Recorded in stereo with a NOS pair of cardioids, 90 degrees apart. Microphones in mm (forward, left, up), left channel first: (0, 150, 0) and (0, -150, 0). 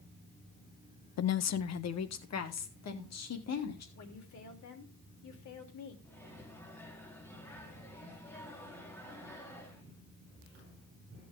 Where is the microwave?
5° left, 3.5 m.